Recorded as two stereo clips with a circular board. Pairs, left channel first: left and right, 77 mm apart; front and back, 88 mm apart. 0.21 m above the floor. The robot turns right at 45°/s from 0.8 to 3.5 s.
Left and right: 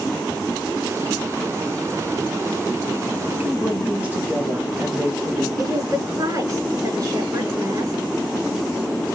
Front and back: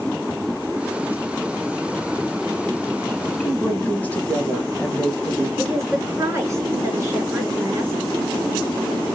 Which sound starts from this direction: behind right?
A woman speaking, at 5.6 s.